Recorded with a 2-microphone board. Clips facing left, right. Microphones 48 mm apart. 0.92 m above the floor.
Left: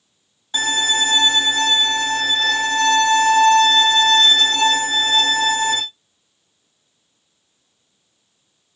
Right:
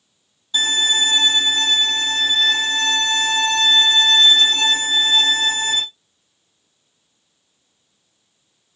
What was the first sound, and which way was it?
A violin, 50° left (ahead or behind).